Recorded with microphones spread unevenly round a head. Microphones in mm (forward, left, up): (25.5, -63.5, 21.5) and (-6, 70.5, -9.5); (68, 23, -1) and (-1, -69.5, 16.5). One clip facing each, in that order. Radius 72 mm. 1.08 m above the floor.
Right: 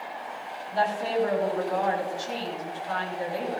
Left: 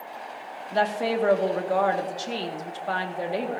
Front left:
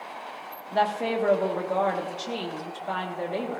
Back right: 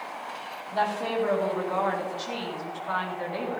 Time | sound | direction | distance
0.7 | a woman speaking | 100° left | 1.8 m